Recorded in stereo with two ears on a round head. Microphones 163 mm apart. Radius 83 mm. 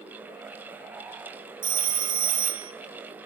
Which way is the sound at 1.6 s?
25° right (ahead or behind).